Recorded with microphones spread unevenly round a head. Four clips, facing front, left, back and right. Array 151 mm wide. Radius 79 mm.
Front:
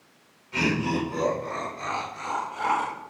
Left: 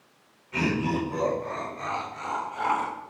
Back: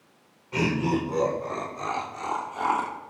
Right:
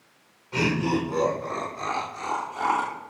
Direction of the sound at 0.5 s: 140° right.